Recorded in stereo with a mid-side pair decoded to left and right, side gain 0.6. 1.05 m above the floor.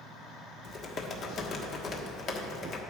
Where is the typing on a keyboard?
45° left, 1.4 m.